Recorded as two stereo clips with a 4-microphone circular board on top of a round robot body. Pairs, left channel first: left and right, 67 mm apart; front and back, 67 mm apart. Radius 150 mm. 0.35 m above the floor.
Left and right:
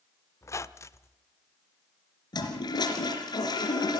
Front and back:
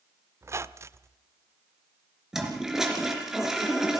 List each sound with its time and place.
0.4 s a squeak: 130° left, 0.7 m
2.3 s a toilet flushing: 95° left, 3 m